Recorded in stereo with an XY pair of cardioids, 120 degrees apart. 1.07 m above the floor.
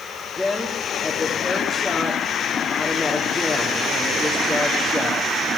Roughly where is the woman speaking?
Ahead.